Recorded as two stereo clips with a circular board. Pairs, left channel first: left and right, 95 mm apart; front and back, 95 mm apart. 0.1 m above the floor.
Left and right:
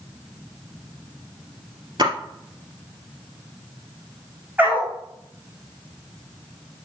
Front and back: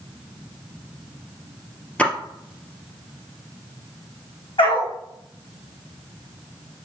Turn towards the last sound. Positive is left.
turn(degrees=-20)